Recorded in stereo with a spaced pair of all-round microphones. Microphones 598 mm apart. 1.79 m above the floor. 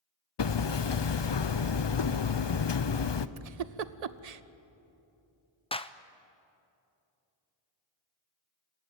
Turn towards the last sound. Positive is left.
turn(degrees=10)  # may be behind; listen again after turning